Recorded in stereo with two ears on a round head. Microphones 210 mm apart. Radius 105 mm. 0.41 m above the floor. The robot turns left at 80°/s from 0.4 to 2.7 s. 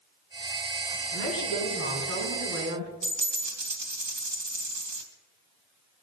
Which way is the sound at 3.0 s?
85° right.